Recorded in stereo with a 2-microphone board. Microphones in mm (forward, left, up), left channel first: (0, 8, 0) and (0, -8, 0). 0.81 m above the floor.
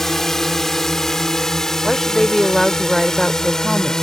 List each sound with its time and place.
0.0 s a drone: 25° left (ahead or behind); by 4.0 s 40° left (ahead or behind)
1.8 s a woman speaking: 10° left (ahead or behind)